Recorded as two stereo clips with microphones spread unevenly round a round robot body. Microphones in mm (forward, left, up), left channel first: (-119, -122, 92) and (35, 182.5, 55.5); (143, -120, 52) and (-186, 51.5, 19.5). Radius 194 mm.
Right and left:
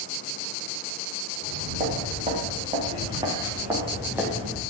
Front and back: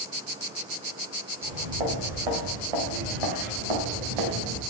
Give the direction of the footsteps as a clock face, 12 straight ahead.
8 o'clock.